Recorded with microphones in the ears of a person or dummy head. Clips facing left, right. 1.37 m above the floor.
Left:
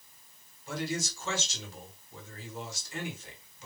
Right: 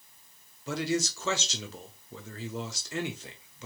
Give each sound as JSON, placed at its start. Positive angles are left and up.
{"t": 0.7, "sound": "a man speaking", "side_deg": -55, "distance_m": 0.8}